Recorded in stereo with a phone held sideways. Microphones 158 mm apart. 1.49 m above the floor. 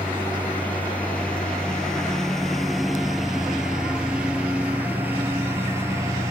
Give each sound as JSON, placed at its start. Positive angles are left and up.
{"t": 0.0, "sound": "a lawn mower", "side_deg": 10}